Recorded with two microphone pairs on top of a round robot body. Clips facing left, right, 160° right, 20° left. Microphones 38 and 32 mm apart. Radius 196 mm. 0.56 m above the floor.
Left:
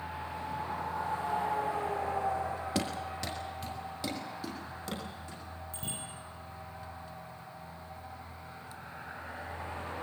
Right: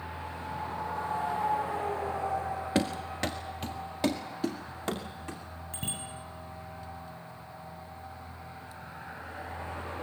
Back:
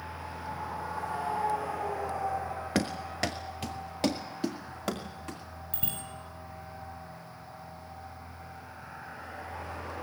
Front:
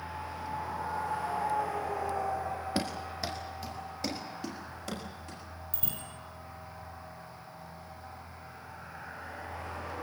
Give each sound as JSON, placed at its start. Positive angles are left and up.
{"t": 2.8, "sound": "running footsteps", "azimuth_deg": -175, "distance_m": 0.5}
{"t": 5.7, "sound": "a bicycle bell", "azimuth_deg": -130, "distance_m": 9.0}